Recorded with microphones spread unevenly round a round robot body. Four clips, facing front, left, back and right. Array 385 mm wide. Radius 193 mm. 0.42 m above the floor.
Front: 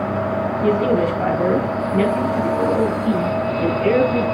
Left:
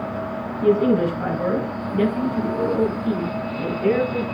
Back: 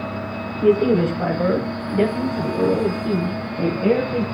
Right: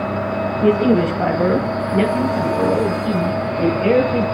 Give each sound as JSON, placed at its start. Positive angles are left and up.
{"t": 0.6, "sound": "a man speaking", "azimuth_deg": -95, "distance_m": 8.0}